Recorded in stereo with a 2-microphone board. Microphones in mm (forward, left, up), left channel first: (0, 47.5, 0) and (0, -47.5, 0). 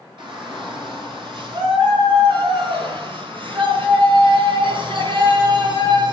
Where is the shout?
60° right (ahead or behind), 6 m; by 6.1 s 55° right (ahead or behind), 3 m.